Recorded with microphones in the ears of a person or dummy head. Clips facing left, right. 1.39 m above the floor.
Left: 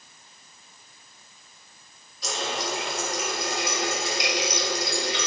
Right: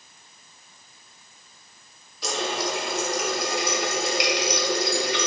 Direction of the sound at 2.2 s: 55° right (ahead or behind).